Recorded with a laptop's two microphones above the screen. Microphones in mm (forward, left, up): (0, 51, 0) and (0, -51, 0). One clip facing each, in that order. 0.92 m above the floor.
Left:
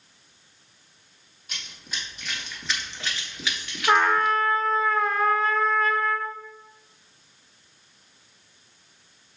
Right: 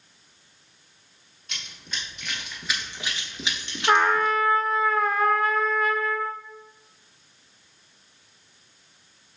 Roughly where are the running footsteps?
Centre.